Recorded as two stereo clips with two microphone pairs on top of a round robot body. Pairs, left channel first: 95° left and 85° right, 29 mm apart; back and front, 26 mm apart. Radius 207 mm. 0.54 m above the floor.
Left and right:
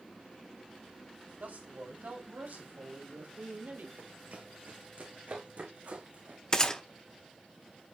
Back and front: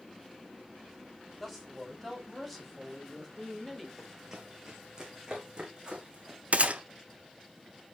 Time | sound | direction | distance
1.4 | a man speaking | 90° right | 4 m
4.0 | running footsteps | 80° right | 3 m
6.5 | a gunshot | 25° left | 1.1 m